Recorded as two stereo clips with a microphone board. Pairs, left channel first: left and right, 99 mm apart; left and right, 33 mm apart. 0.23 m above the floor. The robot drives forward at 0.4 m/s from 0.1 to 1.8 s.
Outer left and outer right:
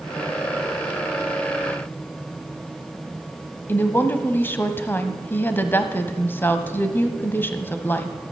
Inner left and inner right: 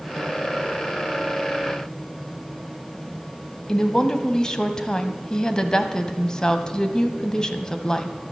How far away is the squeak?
I don't hear a squeak.